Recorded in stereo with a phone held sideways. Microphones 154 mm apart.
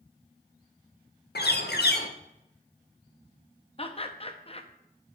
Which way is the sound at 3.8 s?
35° left (ahead or behind).